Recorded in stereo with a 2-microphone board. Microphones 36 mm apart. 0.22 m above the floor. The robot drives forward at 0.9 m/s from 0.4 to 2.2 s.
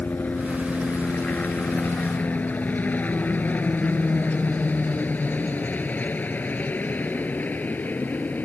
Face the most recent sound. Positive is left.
turn(degrees=50)  # may be behind; listen again after turning